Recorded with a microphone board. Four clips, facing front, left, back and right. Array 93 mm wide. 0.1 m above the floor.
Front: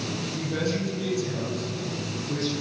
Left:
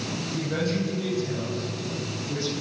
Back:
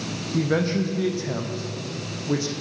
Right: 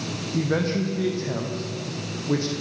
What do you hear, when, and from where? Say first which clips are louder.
0.3 s a man speaking: right 4 dB, back 7 dB; 150° right, 5.5 m; by 2.5 s 130° right, 6 m